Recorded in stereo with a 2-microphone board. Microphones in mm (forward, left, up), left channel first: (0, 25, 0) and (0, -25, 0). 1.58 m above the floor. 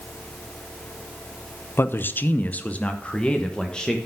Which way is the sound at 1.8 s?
50° left (ahead or behind).